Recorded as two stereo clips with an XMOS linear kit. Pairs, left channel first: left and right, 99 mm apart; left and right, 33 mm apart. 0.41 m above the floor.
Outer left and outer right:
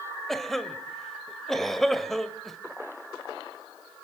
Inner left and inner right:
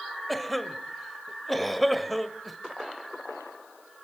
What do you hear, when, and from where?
0.3 s a cough: centre (ahead or behind), 1.8 m